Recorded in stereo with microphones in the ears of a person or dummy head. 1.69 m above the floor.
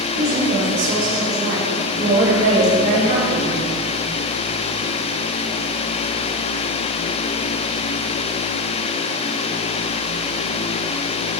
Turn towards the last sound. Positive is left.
turn(degrees=-60)  # may be behind; listen again after turning